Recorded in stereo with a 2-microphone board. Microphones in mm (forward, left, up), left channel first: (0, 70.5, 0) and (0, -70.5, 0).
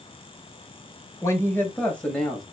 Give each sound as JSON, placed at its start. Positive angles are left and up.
{"t": 1.2, "sound": "a woman speaking", "side_deg": 20, "distance_m": 1.7}